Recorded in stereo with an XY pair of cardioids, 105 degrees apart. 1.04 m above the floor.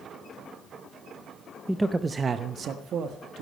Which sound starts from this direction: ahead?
A man speaking, at 1.7 s.